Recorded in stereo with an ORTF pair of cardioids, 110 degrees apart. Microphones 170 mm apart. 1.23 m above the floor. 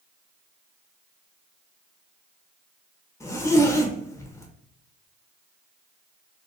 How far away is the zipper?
About 0.8 m.